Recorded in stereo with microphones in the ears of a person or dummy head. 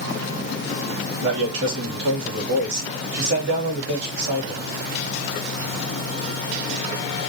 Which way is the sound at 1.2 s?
70° right (ahead or behind).